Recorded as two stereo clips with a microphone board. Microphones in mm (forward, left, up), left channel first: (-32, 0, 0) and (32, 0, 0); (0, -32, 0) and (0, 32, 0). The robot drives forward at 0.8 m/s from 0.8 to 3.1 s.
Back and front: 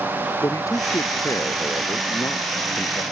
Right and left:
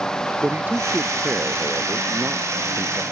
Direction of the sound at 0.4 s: 150° left.